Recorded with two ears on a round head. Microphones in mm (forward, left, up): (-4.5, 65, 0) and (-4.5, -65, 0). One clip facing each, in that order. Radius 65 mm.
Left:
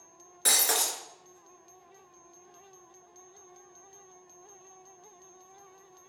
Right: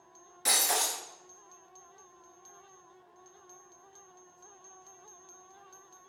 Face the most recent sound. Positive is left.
turn(degrees=60)  # may be behind; listen again after turning